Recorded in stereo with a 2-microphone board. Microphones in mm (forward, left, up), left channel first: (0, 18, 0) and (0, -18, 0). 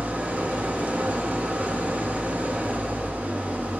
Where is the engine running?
40° right (ahead or behind), 1.0 m.